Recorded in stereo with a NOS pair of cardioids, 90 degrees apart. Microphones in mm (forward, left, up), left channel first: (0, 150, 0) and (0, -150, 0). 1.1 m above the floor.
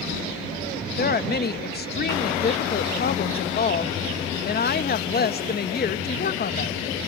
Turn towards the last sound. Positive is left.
turn(degrees=30)